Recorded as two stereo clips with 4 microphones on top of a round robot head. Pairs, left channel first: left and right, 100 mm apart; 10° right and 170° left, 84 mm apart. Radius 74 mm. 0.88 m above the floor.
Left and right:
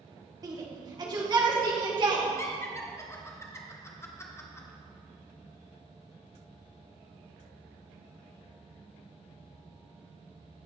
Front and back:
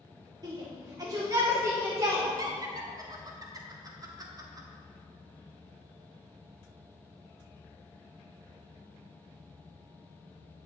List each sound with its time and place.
0.4 s a shout: 140° right, 1.8 m; by 2.2 s 130° right, 3 m
2.4 s laughter: 145° left, 1.3 m